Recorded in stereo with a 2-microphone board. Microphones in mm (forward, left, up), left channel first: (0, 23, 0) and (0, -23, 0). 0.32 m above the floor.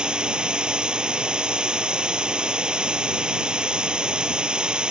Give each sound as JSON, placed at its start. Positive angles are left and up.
{"t": 0.0, "sound": "running water", "side_deg": -20}